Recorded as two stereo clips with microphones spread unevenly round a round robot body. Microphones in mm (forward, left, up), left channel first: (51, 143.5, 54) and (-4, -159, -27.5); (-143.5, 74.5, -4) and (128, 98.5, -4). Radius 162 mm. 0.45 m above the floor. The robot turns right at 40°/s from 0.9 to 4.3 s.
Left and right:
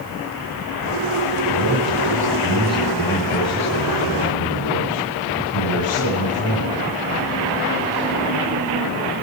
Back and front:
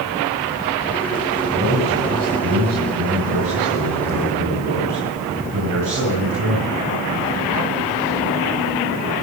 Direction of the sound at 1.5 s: 65° right.